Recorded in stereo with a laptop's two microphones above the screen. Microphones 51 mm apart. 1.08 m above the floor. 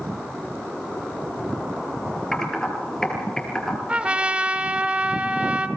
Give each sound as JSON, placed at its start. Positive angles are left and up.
{"t": 2.3, "sound": "typing on a keyboard", "side_deg": 15, "distance_m": 6.0}
{"t": 3.9, "sound": "a trumpet", "side_deg": -25, "distance_m": 1.4}